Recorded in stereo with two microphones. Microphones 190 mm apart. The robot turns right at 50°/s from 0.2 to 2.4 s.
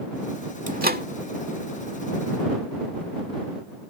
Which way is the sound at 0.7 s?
45° right (ahead or behind).